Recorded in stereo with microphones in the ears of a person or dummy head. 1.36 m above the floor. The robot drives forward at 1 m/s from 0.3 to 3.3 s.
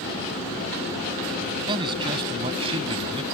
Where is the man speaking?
25° right (ahead or behind); by 3.2 s 30° right (ahead or behind).